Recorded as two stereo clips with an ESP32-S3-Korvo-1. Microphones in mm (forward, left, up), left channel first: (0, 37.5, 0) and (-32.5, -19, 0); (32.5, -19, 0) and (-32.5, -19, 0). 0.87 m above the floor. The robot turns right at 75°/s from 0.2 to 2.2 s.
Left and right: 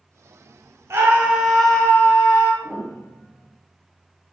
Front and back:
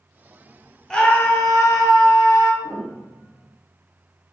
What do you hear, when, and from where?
0.9 s a scream: 80° right, 0.6 m; by 2.5 s 20° left, 0.6 m
2.6 s a piano: 160° left, 1.4 m